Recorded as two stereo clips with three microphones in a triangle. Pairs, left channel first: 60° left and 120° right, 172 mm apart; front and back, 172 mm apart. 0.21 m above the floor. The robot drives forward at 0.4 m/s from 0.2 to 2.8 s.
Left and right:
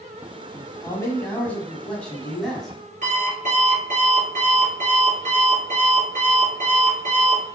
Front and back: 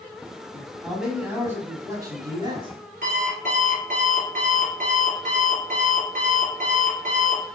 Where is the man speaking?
75° left, 1.2 m; by 2.8 s 150° left, 1.4 m.